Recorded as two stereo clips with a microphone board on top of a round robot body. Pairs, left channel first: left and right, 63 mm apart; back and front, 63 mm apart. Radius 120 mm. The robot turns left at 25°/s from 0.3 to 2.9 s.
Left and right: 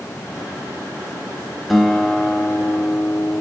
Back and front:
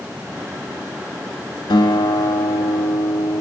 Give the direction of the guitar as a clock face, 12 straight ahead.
6 o'clock.